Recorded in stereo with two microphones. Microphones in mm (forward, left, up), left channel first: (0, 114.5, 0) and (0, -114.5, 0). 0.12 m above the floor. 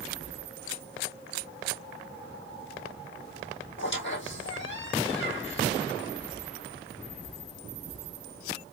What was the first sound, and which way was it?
A squeak, 55° left (ahead or behind).